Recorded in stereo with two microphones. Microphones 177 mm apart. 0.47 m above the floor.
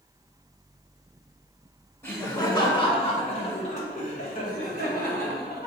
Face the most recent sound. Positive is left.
turn(degrees=65)  # may be behind; listen again after turning